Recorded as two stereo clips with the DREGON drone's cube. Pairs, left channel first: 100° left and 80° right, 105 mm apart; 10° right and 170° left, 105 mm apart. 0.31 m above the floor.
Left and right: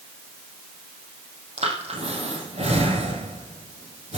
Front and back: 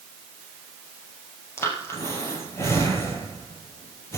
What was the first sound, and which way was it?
Breathing, 75° right.